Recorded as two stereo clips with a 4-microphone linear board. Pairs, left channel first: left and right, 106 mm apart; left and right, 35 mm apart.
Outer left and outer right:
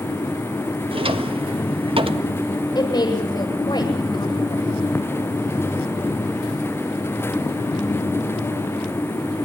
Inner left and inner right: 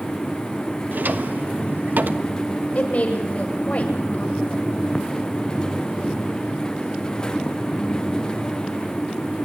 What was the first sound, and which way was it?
A drawer, 60° right (ahead or behind).